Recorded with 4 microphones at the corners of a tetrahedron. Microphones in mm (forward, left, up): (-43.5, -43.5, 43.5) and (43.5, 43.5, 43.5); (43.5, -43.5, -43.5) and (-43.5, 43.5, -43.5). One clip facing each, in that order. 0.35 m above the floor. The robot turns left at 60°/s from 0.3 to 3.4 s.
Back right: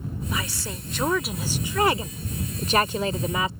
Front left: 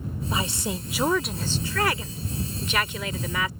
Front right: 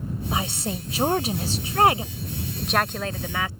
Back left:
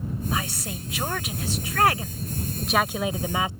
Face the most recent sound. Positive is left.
turn(degrees=180)